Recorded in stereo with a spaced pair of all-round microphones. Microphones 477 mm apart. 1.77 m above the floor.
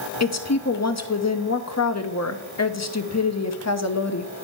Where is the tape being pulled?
No tape being pulled in this recording.